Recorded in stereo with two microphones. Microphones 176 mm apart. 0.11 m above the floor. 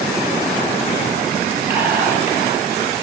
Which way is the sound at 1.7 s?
10° right (ahead or behind).